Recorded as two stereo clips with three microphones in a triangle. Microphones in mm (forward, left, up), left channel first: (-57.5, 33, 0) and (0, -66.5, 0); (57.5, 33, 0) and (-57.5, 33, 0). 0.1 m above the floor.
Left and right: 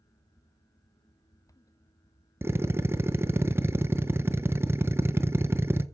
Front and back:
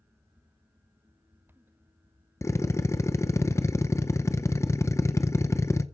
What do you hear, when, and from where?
2.4 s a drill: 20° right, 0.7 m